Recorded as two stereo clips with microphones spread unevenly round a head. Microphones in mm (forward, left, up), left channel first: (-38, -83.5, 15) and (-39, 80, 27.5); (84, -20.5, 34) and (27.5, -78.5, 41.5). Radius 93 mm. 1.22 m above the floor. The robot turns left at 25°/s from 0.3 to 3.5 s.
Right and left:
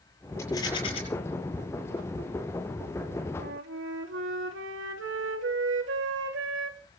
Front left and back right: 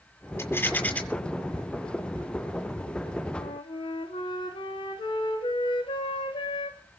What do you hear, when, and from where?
0.4 s a rattle: 10° right, 7.5 m; by 1.0 s 25° right, 7.5 m
3.4 s a flute: 80° left, 3 m